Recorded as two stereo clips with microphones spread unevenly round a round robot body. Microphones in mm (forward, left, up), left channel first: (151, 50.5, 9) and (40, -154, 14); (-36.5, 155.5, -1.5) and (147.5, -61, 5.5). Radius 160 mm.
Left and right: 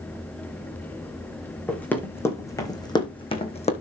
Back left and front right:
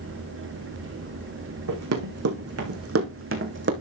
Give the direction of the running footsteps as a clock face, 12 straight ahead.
1 o'clock.